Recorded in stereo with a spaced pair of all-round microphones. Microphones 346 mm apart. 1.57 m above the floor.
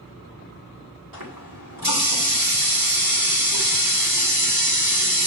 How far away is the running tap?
About 4 m.